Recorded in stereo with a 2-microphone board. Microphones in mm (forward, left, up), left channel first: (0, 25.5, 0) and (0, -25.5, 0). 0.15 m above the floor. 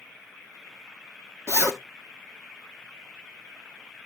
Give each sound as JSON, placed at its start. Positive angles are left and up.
{"t": 1.5, "sound": "a zipper", "side_deg": -70, "distance_m": 1.6}